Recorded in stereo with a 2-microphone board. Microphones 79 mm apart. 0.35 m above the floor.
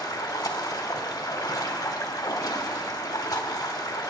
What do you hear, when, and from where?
0.0 s running water: 50° left (ahead or behind), 1.1 m